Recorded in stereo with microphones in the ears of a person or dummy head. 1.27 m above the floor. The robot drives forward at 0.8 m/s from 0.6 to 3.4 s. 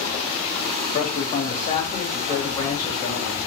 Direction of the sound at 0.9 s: 45° left (ahead or behind).